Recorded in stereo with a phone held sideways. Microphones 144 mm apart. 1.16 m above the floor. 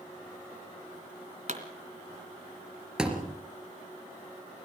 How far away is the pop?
About 3 m.